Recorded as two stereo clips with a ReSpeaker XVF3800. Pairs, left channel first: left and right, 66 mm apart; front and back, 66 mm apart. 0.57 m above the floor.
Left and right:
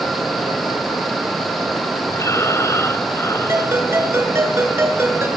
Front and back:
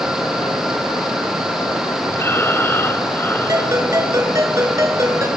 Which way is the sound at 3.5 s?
140° right.